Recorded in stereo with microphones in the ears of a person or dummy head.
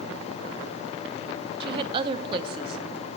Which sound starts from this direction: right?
A woman speaking, at 1.6 s.